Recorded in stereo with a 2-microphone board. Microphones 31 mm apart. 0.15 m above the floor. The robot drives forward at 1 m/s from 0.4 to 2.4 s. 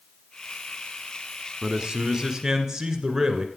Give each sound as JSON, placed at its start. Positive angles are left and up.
{"t": 1.6, "sound": "a man speaking", "side_deg": -20, "distance_m": 1.1}